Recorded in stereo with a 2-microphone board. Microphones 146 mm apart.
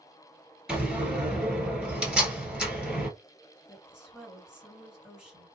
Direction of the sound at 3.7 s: 5° right (ahead or behind).